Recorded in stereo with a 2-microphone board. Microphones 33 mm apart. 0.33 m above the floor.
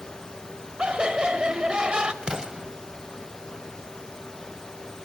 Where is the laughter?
25° right (ahead or behind), 1.2 m.